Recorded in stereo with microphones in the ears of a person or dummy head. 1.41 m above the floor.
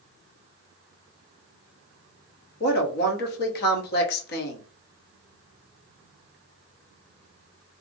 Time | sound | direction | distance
2.6 | a woman speaking | 65° left (ahead or behind) | 0.9 m